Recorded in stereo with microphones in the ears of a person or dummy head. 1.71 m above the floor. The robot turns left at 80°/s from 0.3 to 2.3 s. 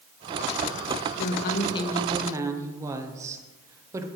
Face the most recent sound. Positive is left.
turn(degrees=-15)